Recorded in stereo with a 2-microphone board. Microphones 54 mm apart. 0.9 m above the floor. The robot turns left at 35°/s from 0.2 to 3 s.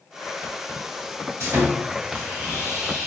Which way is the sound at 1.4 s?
115° right.